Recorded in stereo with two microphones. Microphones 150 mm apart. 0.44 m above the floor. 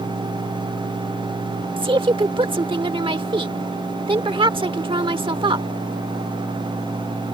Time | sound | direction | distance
1.8 | a woman speaking | 35° right (ahead or behind) | ?